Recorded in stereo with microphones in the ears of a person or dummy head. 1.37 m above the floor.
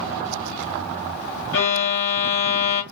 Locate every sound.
1.5 s a violin: 65° left (ahead or behind), 1.8 m